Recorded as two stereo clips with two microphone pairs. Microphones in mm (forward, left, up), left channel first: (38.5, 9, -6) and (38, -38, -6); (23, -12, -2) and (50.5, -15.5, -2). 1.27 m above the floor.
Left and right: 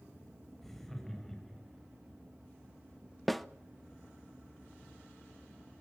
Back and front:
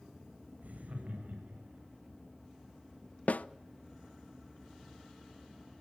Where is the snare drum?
Straight behind, 0.6 m.